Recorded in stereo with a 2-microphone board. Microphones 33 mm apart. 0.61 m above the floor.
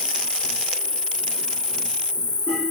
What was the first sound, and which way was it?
An insect, 30° left (ahead or behind).